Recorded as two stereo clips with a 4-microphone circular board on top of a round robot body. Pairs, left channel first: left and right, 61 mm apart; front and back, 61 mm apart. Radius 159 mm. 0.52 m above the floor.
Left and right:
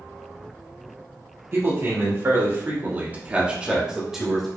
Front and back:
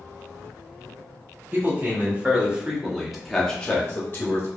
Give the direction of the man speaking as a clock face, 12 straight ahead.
4 o'clock.